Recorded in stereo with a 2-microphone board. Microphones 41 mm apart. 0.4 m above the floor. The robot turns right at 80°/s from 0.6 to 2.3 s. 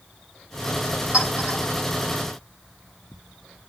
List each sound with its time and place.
1.1 s a clink: 25° right (ahead or behind), 8 m; by 1.6 s 60° right (ahead or behind), 8 m